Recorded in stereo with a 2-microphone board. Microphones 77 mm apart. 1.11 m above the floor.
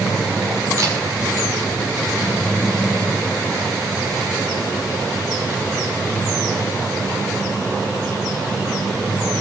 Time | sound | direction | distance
0.8 | a camera shutter | 40° right (ahead or behind) | 6.5 m